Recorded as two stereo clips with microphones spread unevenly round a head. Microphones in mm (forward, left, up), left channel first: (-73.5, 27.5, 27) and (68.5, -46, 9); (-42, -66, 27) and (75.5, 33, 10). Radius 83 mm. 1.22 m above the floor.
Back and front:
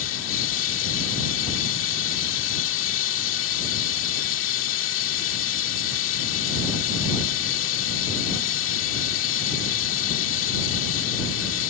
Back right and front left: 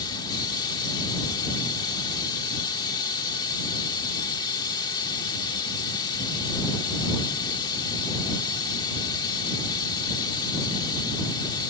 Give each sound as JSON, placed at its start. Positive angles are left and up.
{"t": 0.0, "sound": "running water", "azimuth_deg": 155}